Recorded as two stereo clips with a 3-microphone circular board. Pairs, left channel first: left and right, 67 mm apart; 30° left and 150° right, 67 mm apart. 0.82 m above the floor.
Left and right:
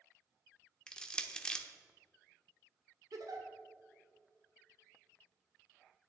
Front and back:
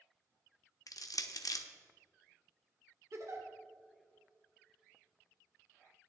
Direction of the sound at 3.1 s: 110° right.